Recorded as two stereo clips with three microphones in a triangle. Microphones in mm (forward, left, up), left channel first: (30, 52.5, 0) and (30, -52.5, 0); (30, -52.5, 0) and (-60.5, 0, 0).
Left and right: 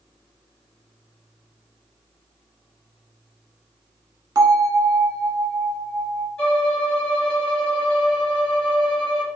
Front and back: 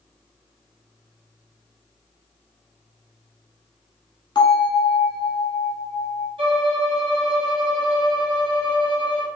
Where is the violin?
165° left, 1.7 m.